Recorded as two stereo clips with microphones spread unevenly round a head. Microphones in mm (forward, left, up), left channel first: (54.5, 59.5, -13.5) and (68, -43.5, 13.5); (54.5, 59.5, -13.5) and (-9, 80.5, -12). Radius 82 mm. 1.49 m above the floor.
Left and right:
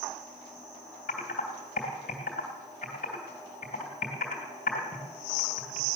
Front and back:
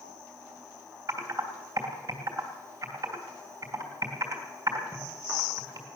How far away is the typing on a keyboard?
About 2.5 m.